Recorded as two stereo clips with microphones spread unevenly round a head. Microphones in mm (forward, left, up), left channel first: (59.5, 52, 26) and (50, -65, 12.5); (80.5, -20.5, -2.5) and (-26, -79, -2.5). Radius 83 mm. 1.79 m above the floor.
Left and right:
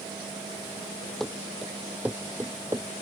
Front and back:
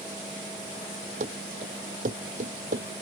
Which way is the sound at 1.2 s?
170° left.